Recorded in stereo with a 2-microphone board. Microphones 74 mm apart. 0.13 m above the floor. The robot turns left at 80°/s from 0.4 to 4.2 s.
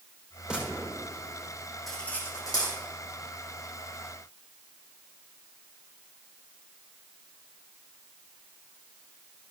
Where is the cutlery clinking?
Centre (ahead or behind), 4 m; by 2.8 s 70° left (ahead or behind), 4 m.